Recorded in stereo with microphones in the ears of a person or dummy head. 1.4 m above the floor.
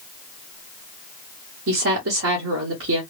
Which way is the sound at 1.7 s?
75° right (ahead or behind).